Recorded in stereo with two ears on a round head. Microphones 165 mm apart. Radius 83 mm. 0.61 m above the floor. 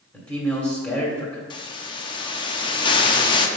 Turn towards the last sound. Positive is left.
turn(degrees=25)  # may be behind; listen again after turning